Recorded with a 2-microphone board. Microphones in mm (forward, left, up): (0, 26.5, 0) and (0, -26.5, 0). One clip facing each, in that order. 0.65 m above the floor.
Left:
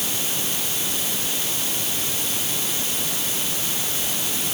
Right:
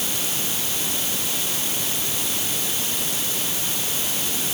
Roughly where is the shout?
No shout in this recording.